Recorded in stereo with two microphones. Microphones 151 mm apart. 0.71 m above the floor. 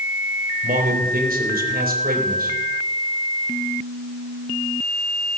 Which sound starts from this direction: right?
A man speaking, at 0.6 s.